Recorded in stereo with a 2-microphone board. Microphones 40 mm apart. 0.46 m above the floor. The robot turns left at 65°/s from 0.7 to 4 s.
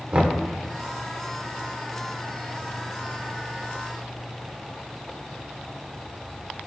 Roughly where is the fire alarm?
I don't hear a fire alarm.